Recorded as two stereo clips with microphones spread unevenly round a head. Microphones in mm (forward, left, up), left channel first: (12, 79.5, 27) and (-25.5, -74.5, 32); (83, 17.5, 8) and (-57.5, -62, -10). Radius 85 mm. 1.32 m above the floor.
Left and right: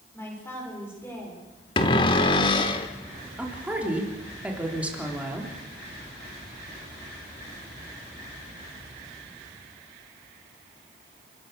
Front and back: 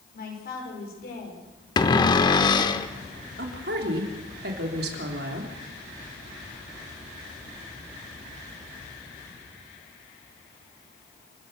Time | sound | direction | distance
0.1 | a man speaking | straight ahead | 5.5 m
1.8 | a cupboard door | 40° left | 1.0 m
3.4 | a woman speaking | 175° left | 3 m